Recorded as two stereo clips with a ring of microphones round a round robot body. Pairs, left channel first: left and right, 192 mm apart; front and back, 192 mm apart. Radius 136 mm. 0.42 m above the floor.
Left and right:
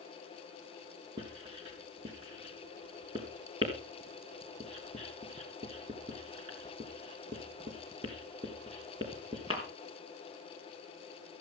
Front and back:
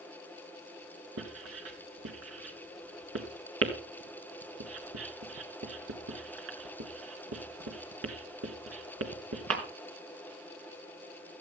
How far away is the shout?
No shout in this recording.